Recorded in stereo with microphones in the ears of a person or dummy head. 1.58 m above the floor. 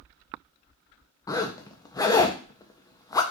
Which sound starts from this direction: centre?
A zipper, at 1.3 s.